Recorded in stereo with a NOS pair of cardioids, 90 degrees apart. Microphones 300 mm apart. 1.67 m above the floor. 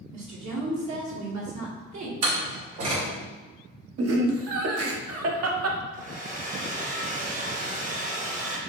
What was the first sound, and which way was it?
A woman speaking, 65° right.